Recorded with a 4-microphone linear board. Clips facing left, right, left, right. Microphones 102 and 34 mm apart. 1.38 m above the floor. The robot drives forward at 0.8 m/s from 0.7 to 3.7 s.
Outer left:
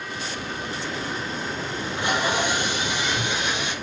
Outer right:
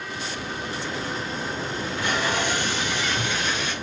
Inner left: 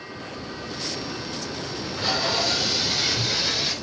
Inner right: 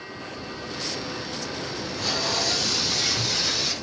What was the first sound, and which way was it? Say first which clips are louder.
Tape being pulled: outer left 2 dB, inner left 3 dB; 20° left (ahead or behind).